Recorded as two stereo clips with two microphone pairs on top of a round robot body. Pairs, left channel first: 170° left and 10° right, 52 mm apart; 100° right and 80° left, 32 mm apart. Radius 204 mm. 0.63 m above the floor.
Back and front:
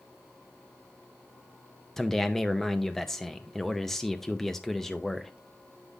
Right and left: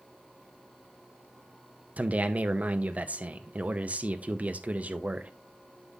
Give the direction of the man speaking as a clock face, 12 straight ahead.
9 o'clock.